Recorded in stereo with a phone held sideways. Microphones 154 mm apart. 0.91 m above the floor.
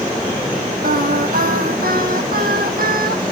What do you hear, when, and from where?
0.8 s singing: 70° right (ahead or behind), 0.9 m